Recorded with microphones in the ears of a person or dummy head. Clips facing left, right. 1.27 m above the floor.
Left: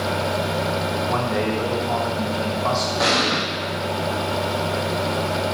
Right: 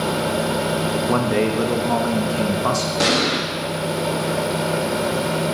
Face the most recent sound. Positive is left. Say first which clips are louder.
# right 4 dB
turn(degrees=-40)  # may be behind; listen again after turning